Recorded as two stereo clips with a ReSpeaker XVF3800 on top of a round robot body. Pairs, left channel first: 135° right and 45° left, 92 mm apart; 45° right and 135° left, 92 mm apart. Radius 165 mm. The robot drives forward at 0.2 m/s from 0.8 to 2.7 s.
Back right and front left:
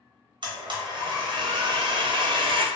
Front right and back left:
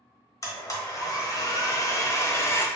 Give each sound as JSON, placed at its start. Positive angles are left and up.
{"t": 0.4, "sound": "a blender", "azimuth_deg": 10, "distance_m": 0.8}